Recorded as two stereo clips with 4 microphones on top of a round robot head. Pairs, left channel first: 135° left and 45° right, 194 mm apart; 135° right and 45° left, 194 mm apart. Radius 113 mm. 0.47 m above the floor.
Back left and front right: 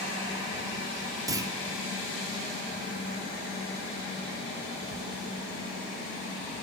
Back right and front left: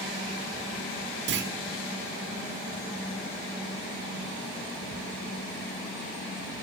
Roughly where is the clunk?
Ahead left.